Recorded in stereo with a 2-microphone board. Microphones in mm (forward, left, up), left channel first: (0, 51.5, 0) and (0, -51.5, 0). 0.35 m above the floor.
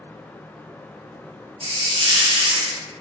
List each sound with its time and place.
1.6 s a hiss: 60° right (ahead or behind), 0.5 m